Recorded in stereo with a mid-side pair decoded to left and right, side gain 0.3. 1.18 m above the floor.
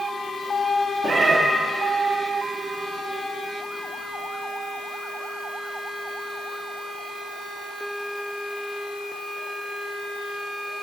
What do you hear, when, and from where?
1.0 s a cat meowing: 55° right, 1.2 m